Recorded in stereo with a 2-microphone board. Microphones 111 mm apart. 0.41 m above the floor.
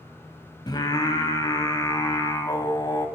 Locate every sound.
0.7 s singing: 40° left (ahead or behind), 1.3 m